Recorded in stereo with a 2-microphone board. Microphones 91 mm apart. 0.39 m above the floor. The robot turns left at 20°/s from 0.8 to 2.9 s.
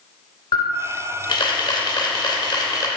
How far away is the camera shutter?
About 0.8 m.